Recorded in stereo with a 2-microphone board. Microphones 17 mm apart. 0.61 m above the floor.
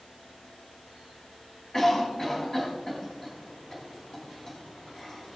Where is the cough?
40° left (ahead or behind), 3 m.